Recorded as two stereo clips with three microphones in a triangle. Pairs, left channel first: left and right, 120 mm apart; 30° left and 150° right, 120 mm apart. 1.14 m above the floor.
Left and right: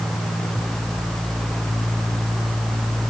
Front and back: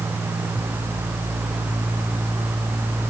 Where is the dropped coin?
No dropped coin in this recording.